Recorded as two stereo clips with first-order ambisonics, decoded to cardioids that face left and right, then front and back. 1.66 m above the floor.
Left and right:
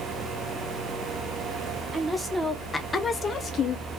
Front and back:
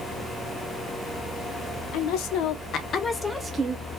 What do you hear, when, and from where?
1.9 s a woman speaking: 10° right, 1.0 m; by 3.9 s 135° left, 0.7 m